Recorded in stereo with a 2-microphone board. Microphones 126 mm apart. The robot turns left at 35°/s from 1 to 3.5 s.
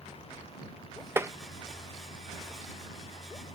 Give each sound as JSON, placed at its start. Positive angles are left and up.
{"t": 1.2, "sound": "tapping", "side_deg": -20}